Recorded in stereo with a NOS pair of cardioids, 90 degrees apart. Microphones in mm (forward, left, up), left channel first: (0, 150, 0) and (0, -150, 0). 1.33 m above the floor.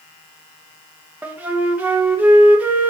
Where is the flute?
5° right, 0.8 m.